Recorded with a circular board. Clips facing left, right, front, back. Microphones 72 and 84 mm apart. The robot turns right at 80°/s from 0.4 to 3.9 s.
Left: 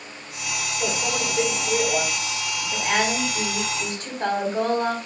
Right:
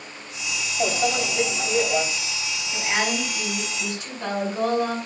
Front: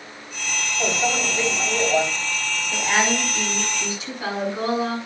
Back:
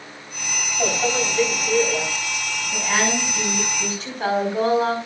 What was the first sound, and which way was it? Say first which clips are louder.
A microwave: right 4 dB, back 2 dB; 110° right.